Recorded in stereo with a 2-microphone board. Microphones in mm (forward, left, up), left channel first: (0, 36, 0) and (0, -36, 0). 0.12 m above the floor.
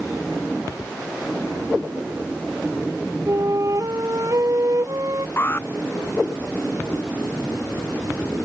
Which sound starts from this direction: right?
A flute, at 3.3 s.